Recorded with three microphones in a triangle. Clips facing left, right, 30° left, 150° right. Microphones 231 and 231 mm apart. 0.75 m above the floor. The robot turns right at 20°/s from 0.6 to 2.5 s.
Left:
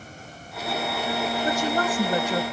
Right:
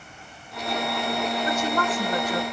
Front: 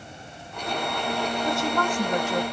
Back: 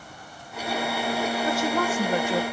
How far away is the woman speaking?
About 0.7 m.